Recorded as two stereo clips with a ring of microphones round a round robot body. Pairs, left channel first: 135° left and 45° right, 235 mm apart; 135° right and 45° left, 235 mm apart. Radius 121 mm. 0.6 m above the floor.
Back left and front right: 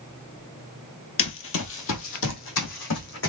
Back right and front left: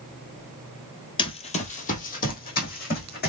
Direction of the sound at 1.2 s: 160° left.